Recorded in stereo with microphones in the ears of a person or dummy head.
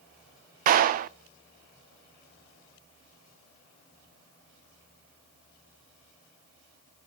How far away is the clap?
About 0.6 m.